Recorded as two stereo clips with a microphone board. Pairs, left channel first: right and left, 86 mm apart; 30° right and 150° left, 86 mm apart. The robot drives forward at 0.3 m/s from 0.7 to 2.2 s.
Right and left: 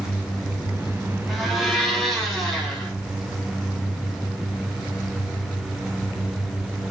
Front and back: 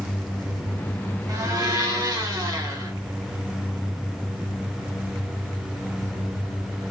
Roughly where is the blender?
Behind.